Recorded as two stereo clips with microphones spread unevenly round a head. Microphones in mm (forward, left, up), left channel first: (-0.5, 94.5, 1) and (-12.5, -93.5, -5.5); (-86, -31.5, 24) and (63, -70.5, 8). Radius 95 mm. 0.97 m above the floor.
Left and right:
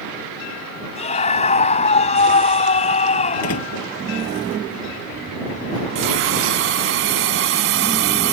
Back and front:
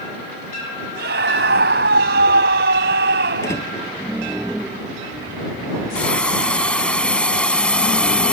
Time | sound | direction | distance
0.9 | a scream | 30° left | ?
3.4 | a door slam | 90° left | ?
6.0 | a hiss | 115° right | ?